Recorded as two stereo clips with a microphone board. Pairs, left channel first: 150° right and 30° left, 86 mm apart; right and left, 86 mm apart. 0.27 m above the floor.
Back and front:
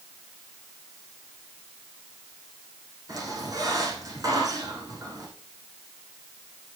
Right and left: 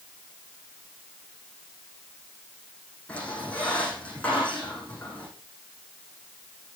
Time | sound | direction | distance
3.1 | a squeak | 15° right | 7 m